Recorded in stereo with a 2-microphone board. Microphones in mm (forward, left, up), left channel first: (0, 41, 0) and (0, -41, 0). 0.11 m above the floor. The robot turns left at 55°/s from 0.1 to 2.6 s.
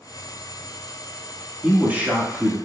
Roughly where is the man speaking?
Right.